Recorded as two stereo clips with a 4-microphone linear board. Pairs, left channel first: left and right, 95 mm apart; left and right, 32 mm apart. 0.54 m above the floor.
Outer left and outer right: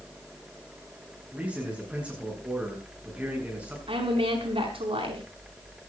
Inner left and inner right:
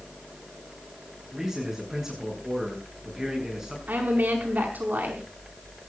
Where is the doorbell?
I don't hear a doorbell.